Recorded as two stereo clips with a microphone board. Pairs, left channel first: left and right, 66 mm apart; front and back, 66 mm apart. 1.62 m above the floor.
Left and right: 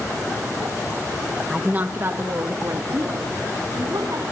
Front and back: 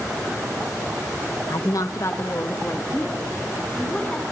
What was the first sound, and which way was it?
A woman speaking, 10° right.